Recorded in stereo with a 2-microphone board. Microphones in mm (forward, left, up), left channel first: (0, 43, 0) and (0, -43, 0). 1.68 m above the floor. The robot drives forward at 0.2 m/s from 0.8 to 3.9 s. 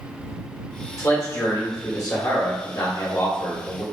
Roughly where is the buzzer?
No buzzer in this recording.